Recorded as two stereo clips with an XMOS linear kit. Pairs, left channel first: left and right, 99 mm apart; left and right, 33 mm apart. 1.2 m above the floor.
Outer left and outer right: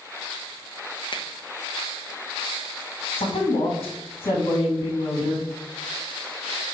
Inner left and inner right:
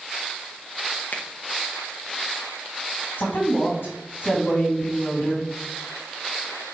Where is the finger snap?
50° left (ahead or behind), 0.8 m.